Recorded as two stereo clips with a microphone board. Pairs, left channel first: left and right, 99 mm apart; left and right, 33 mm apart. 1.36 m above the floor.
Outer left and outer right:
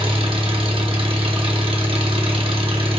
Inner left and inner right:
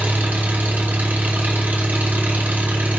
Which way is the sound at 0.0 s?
65° right (ahead or behind).